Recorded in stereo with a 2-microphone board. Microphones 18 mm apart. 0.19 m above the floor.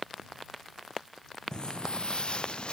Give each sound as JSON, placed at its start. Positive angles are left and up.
{"t": 1.5, "sound": "footsteps", "side_deg": 50}